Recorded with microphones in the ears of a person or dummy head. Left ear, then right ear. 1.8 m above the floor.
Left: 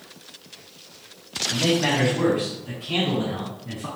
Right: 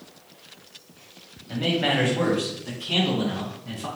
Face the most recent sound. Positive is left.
turn(degrees=-80)